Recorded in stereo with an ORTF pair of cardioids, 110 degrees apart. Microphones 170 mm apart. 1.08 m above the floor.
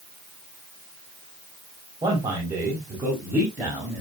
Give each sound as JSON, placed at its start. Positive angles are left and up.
{"t": 2.0, "sound": "a man speaking", "azimuth_deg": -20, "distance_m": 4.5}